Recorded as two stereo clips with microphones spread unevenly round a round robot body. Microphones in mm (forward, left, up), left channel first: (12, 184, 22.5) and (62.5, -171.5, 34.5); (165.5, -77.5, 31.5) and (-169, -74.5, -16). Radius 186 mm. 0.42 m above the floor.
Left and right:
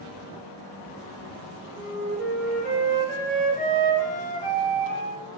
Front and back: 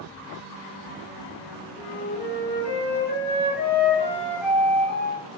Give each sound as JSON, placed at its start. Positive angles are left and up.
{"t": 1.8, "sound": "a flute", "azimuth_deg": -55, "distance_m": 1.5}